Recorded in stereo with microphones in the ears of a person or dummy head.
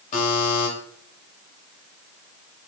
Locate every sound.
0.1 s a buzzer: 45° left (ahead or behind), 3 m